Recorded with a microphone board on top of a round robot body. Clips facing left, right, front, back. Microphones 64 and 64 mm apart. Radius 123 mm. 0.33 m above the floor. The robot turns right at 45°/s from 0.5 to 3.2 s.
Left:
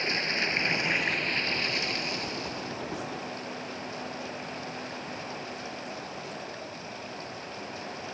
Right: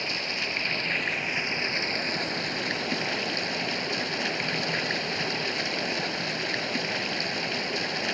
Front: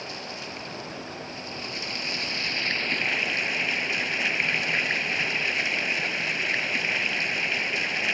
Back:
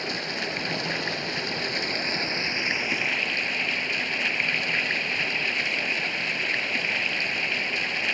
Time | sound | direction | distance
0.0 | running water | 150° left | ?